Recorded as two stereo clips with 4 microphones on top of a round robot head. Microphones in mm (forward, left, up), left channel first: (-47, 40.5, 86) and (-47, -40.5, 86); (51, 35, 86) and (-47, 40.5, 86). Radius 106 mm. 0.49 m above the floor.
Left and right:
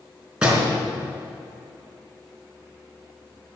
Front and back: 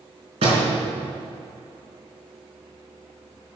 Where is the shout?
No shout in this recording.